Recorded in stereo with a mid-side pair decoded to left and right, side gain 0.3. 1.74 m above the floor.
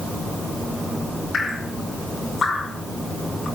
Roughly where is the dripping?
Ahead left.